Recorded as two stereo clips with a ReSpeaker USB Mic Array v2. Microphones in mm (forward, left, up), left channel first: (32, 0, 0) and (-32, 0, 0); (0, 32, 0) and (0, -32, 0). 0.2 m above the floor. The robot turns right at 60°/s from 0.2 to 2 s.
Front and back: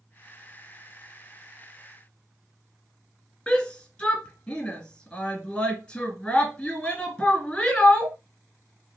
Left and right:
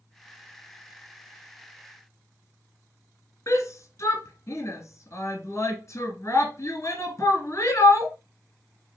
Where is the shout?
65° left, 1.8 m.